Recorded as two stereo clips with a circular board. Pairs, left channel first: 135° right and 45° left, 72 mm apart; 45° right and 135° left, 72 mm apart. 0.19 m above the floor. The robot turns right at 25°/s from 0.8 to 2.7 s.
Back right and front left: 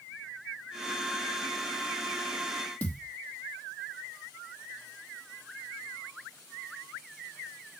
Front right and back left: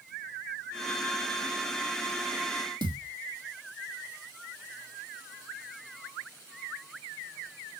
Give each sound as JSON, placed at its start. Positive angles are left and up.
{"t": 2.8, "sound": "a thud", "azimuth_deg": 155, "distance_m": 3.0}